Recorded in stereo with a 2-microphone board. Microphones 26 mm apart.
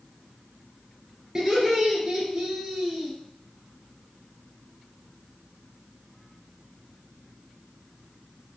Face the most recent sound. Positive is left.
turn(degrees=-15)  # may be behind; listen again after turning